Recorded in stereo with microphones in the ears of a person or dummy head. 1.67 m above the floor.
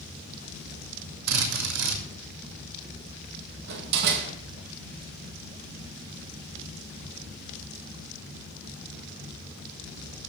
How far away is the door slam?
About 1.9 m.